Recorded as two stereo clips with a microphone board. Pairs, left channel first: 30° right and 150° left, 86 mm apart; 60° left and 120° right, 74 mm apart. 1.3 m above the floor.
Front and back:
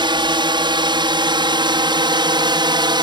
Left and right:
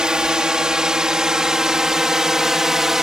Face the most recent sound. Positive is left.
turn(degrees=155)